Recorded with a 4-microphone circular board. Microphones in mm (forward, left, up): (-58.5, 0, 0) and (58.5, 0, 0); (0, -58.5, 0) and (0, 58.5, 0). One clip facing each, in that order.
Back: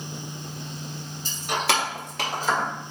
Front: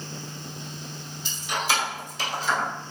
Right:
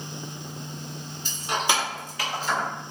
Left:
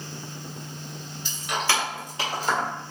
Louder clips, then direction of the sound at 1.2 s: Back 2 dB, right 1 dB; 140° right.